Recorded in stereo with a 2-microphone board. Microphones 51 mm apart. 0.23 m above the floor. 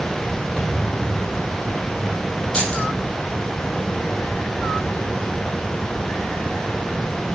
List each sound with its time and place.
0.6 s a thud: 15° left (ahead or behind), 5 m
2.5 s keys jangling: 20° left (ahead or behind), 5.5 m